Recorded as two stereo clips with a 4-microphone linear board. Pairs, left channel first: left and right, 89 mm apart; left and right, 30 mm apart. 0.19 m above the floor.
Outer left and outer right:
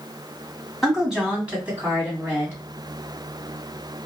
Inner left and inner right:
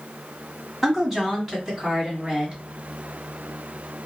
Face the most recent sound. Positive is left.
turn(degrees=-30)  # may be behind; listen again after turning